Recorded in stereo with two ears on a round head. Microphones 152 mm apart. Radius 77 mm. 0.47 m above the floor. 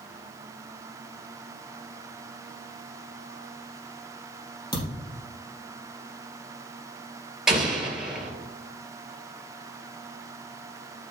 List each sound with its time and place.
4.7 s a thud: 25° left (ahead or behind), 3.5 m
7.5 s an explosion: 5° right (ahead or behind), 2.5 m